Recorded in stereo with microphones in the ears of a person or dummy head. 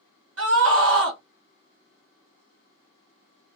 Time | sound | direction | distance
0.4 | a scream | 75° right (ahead or behind) | 1.7 m